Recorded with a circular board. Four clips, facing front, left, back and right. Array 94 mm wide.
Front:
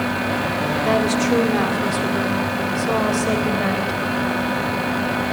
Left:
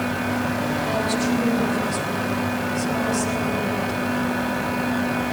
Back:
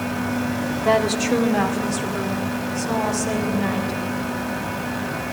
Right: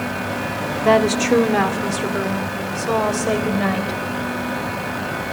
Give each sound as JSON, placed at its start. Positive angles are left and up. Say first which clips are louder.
{"t": 0.8, "sound": "a woman speaking", "louder": "right 11 dB, even", "azimuth_deg": -100, "distance_m": 1.7}